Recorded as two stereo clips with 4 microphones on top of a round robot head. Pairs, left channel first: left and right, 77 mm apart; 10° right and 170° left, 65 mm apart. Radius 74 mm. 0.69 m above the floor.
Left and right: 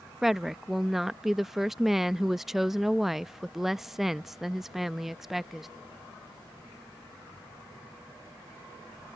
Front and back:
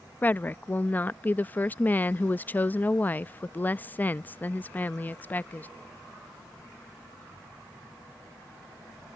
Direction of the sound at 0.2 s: 10° right.